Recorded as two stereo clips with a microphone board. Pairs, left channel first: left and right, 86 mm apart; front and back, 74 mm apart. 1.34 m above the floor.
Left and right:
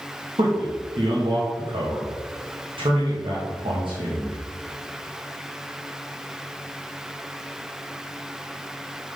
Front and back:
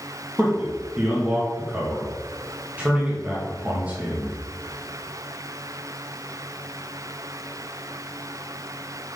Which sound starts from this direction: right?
A man speaking, at 0.4 s.